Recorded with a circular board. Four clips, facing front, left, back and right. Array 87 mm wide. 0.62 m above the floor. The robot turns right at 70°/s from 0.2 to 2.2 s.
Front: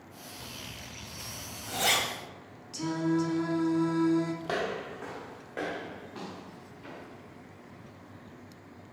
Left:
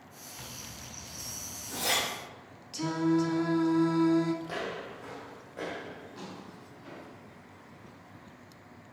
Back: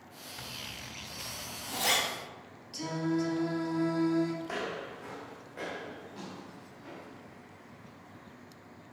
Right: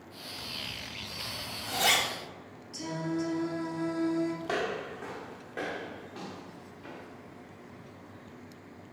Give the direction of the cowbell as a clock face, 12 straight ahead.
I don't hear a cowbell.